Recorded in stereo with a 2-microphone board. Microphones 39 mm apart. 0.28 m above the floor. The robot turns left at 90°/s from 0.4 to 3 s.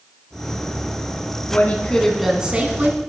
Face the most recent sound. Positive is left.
turn(degrees=-75)